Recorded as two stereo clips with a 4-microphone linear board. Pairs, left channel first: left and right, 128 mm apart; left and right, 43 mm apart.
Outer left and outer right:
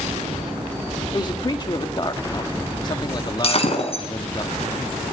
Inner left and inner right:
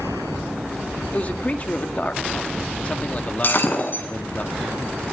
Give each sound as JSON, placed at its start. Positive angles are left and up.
{"t": 1.1, "sound": "a man speaking", "side_deg": 35, "distance_m": 1.8}
{"t": 3.4, "sound": "breaking glass", "side_deg": 50, "distance_m": 5.5}